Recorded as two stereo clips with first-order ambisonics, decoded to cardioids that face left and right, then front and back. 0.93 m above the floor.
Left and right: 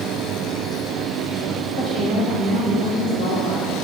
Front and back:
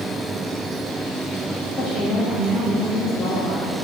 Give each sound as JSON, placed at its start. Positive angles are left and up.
{"t": 1.8, "sound": "a woman speaking", "azimuth_deg": 85, "distance_m": 2.5}